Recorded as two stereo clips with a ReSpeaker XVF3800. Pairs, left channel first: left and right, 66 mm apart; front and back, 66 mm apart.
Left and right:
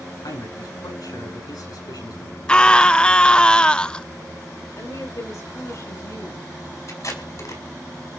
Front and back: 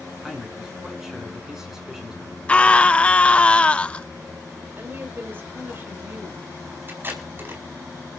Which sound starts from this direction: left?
A man speaking, at 0.2 s.